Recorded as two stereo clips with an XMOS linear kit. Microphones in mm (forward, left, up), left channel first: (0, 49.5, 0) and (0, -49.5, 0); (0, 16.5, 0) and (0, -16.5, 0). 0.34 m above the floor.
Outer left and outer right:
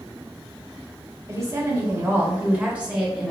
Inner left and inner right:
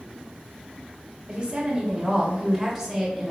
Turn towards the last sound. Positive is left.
turn(degrees=-5)  # may be behind; listen again after turning